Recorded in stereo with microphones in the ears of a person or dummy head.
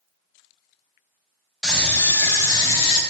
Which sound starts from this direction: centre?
A scream, at 1.6 s.